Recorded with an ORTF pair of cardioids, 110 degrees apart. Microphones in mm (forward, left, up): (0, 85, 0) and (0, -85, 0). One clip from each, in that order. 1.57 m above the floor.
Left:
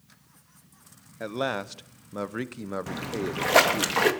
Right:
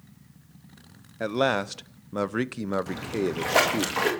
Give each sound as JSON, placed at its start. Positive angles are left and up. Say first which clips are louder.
{"t": 1.2, "sound": "a man speaking", "louder": "right 5 dB", "azimuth_deg": -20, "distance_m": 0.8}
{"t": 2.9, "sound": "a splash", "louder": "right 3 dB", "azimuth_deg": 20, "distance_m": 3.0}